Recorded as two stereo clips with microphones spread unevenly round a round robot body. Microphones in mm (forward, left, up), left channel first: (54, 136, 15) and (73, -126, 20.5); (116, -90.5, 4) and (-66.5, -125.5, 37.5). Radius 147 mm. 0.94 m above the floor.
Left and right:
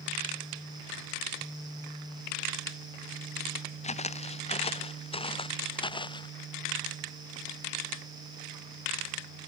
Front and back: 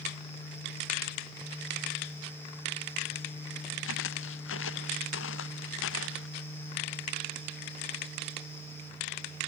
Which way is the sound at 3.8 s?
30° left.